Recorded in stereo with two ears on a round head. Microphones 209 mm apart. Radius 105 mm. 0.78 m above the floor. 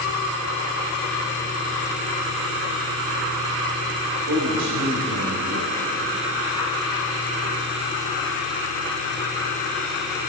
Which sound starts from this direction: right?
A man speaking, at 4.3 s.